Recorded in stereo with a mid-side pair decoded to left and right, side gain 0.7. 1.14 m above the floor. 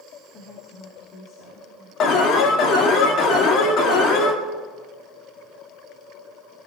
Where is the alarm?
50° left, 2 m.